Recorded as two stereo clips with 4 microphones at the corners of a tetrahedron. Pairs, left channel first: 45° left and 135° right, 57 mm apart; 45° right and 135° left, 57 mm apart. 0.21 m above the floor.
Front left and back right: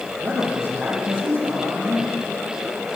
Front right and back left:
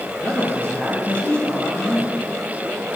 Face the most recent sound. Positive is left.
turn(degrees=-110)